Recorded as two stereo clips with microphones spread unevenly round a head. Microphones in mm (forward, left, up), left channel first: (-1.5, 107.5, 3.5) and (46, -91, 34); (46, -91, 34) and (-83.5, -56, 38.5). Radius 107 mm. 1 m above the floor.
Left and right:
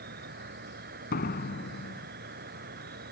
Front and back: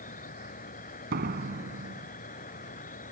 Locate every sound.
0.0 s an insect: 35° right
1.1 s a door slam: 155° left